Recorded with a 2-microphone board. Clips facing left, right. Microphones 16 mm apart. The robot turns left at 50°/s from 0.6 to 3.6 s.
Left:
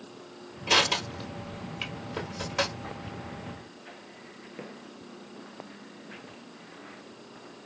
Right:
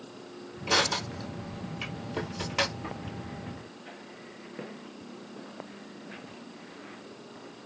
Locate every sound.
0.7 s crushing: 75° left (ahead or behind), 1.8 m; by 3.0 s 40° right (ahead or behind), 1.8 m